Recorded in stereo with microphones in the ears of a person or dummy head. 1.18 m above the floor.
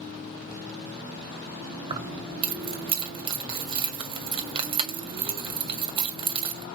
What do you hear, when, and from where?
1.9 s keys jangling: 30° right (ahead or behind), 1.7 m